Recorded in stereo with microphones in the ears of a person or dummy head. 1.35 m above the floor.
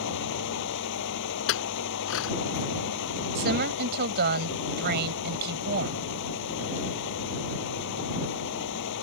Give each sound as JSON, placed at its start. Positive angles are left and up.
{"t": 0.0, "sound": "a fan", "side_deg": 65}
{"t": 1.5, "sound": "a clink", "side_deg": 70}
{"t": 3.4, "sound": "a woman speaking", "side_deg": -55}